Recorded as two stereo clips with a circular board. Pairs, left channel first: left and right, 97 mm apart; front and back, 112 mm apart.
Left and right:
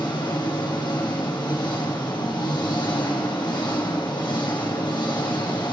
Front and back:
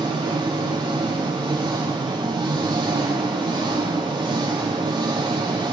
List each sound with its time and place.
0.0 s an engine running: 130° left, 3.5 m